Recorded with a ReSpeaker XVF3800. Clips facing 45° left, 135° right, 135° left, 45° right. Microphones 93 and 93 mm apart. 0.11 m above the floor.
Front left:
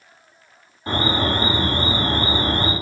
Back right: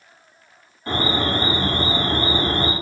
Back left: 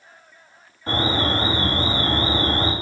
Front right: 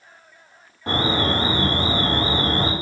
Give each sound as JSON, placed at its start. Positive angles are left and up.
{"t": 0.9, "sound": "an alarm", "azimuth_deg": -30, "distance_m": 6.0}